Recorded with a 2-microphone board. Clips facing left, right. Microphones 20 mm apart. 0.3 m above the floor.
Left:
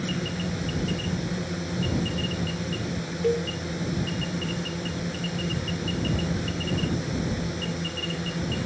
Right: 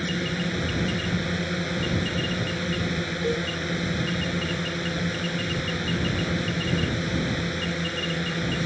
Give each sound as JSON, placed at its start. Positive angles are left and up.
{"t": 0.0, "sound": "a drone", "side_deg": -40}
{"t": 3.2, "sound": "a cowbell", "side_deg": 35}